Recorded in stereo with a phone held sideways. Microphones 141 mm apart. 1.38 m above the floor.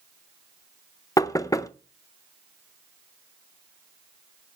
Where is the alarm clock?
No alarm clock in this recording.